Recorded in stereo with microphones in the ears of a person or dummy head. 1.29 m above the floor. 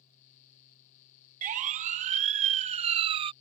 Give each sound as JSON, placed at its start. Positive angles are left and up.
{"t": 1.4, "sound": "a siren", "side_deg": -40}